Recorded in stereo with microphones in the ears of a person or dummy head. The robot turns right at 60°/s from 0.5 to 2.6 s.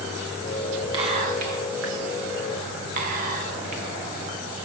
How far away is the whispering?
About 1.9 m.